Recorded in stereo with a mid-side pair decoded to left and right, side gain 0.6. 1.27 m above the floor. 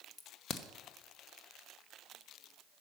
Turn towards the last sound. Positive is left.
turn(degrees=40)